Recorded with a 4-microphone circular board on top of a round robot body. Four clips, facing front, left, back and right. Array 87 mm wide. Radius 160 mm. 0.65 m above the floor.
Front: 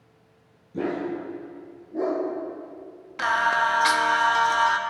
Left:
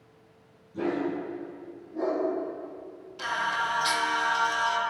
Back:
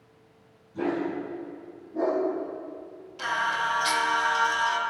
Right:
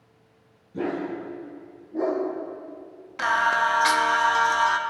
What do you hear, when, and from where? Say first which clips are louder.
0.7 s a dog barking: even, even; 30° right, 4 m; by 2.2 s 45° right, 3.5 m
3.2 s singing: right 7 dB, front 6 dB; 50° right, 0.9 m